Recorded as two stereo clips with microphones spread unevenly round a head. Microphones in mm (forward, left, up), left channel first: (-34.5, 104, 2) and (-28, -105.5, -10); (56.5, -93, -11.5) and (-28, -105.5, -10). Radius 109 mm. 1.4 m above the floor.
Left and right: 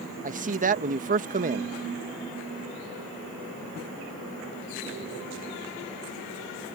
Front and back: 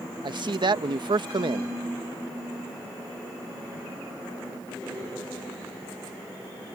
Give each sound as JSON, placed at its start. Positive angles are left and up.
{"t": 0.2, "sound": "a man speaking", "azimuth_deg": -140}